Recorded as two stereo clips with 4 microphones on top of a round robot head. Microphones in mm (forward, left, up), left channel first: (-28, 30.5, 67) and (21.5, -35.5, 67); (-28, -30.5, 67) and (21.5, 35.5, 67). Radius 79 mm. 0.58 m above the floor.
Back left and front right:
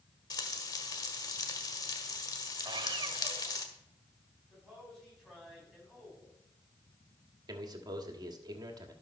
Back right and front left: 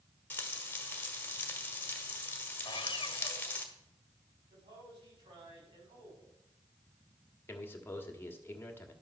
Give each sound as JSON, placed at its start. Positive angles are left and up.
{"t": 0.3, "sound": "frying", "azimuth_deg": 165, "distance_m": 1.6}
{"t": 2.6, "sound": "sawing", "azimuth_deg": -90, "distance_m": 1.4}
{"t": 4.5, "sound": "a man speaking", "azimuth_deg": 40, "distance_m": 6.0}
{"t": 7.5, "sound": "a man speaking", "azimuth_deg": -70, "distance_m": 1.6}